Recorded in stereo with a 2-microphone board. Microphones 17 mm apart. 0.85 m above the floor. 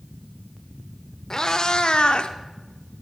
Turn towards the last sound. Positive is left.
turn(degrees=85)